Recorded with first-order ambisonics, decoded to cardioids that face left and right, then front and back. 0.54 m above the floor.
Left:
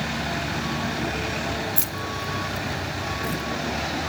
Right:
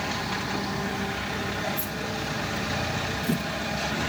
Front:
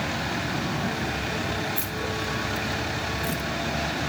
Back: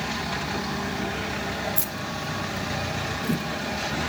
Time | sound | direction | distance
1.8 | keys jangling | 105° left | 1.2 m